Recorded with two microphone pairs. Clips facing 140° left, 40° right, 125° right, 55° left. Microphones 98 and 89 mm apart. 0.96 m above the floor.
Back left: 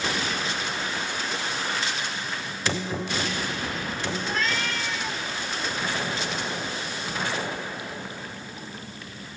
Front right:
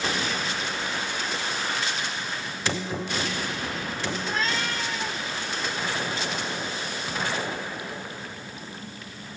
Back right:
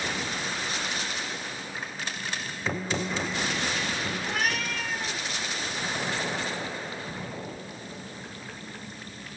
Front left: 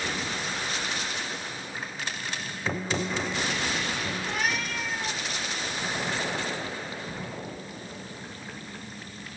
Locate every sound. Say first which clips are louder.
4.2 s a cat meowing: even, even; 95° right, 3.5 m